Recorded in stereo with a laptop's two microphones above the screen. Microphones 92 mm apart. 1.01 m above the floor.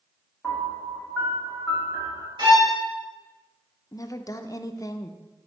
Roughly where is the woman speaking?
Left.